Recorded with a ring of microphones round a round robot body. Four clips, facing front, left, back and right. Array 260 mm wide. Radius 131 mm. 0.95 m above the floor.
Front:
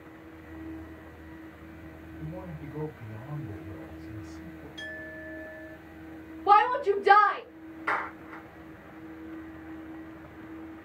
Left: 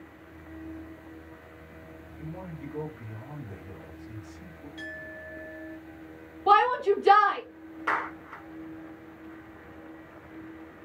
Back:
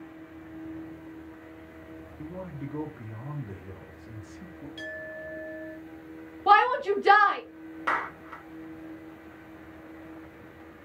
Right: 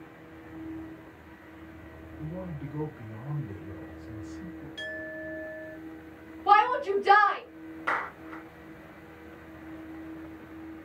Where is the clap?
Straight behind, 1.7 m.